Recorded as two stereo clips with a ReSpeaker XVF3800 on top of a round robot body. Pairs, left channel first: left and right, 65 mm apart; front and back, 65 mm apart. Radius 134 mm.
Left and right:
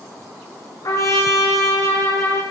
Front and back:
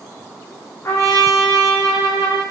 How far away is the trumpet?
About 8.5 m.